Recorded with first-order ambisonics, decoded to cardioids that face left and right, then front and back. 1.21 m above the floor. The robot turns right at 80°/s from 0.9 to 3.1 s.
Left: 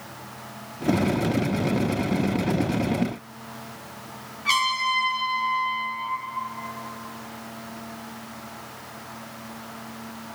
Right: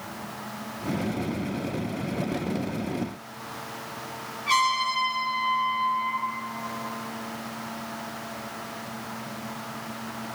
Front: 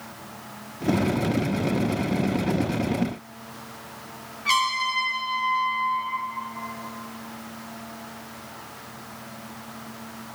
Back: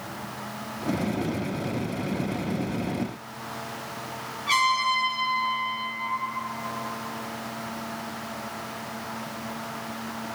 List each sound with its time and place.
4.5 s a trumpet: 40° left, 7 m